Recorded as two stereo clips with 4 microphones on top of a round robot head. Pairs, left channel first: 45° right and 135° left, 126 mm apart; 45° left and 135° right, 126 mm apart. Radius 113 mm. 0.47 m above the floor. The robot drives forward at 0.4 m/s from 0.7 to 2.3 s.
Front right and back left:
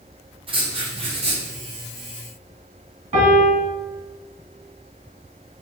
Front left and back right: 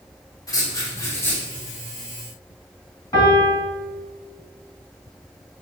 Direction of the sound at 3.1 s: 110° left.